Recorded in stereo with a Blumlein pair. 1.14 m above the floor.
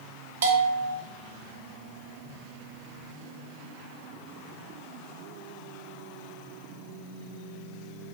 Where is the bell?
60° right, 2 m.